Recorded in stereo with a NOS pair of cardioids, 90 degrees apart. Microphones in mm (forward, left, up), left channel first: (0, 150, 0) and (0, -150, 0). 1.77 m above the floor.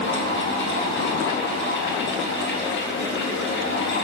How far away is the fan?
About 3.5 m.